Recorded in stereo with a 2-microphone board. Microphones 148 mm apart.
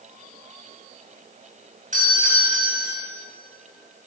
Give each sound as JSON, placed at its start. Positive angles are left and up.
{"t": 1.9, "sound": "a doorbell", "side_deg": -65, "distance_m": 2.5}